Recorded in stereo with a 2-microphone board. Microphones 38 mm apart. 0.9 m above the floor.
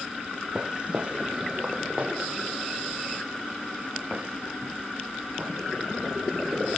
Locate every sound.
0.6 s footsteps: 25° right (ahead or behind), 1.2 m; by 5.5 s 40° right (ahead or behind), 6 m